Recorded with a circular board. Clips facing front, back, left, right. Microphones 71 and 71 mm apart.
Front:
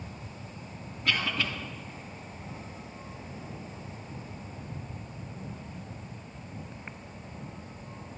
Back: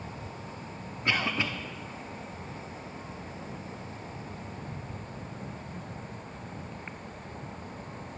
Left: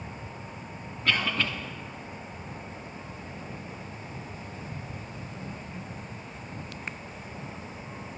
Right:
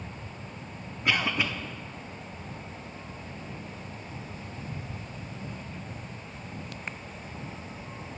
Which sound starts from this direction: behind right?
A cough, at 1.1 s.